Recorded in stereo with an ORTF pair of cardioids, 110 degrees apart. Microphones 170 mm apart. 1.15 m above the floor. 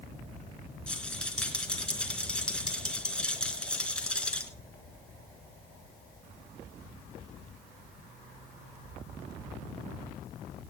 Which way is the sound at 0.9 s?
5° left.